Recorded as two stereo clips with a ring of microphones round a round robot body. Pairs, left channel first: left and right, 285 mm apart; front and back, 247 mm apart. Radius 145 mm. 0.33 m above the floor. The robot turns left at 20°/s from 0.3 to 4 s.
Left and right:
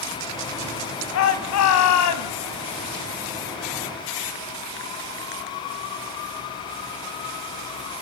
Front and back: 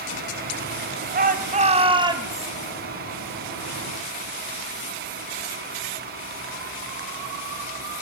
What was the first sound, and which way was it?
A shout, 130° left.